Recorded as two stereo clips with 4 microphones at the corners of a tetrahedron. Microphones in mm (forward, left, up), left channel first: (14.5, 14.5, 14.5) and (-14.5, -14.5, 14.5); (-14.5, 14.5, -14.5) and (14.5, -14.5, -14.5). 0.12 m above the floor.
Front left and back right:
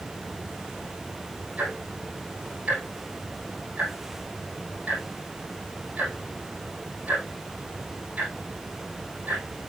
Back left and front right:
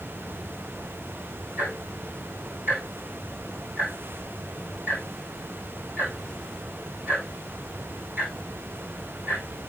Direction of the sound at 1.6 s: 80° right.